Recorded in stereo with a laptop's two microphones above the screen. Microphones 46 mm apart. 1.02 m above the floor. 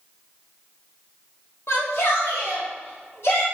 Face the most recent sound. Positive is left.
turn(degrees=75)  # may be behind; listen again after turning